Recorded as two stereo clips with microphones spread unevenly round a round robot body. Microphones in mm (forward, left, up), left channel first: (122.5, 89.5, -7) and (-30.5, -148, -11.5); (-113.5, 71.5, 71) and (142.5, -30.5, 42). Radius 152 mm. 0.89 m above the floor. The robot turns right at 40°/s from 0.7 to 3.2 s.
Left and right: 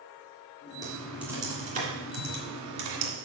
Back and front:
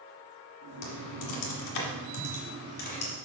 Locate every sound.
0.8 s typing on a keyboard: 135° left, 1.7 m; by 3.1 s 130° right, 1.7 m